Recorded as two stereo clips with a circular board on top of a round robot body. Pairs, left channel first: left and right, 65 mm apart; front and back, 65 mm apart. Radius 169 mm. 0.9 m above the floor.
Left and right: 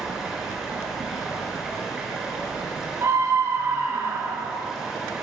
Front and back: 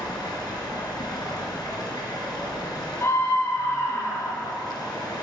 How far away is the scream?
About 4.5 m.